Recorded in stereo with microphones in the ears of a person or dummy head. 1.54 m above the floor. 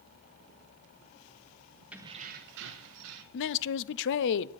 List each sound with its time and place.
1.9 s keys jangling: 10° right (ahead or behind), 0.6 m; by 3.2 s 75° right (ahead or behind), 1.5 m
3.3 s a man speaking: 65° left (ahead or behind), 0.7 m